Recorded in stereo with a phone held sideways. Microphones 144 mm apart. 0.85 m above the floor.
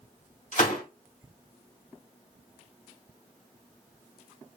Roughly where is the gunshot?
Left.